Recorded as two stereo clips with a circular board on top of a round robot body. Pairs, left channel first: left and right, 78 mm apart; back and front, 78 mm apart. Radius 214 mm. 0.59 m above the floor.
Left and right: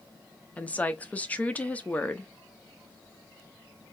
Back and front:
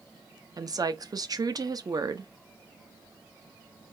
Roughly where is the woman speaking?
Ahead.